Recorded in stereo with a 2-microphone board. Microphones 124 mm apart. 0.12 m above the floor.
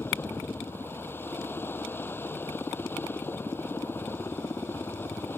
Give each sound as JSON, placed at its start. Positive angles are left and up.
{"t": 0.0, "sound": "a helicopter", "side_deg": 15}